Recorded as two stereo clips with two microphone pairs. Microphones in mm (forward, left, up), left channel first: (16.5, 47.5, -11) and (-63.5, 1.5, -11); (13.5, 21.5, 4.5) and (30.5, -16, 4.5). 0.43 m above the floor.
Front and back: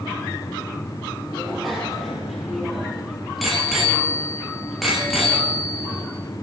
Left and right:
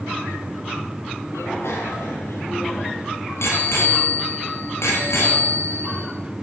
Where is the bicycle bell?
120° left, 8.5 m.